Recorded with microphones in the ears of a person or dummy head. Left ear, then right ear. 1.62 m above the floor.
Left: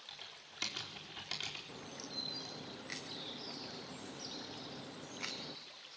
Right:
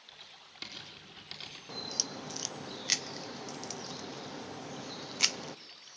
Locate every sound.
0.1 s typing on a keyboard: 30° left (ahead or behind), 4.5 m
1.7 s a crack: 70° right (ahead or behind), 0.8 m